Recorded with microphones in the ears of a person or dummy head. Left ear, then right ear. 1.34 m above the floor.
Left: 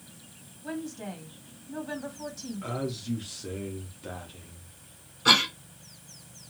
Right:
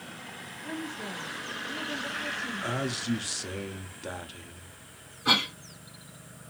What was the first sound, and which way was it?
A woman speaking, 75° left (ahead or behind).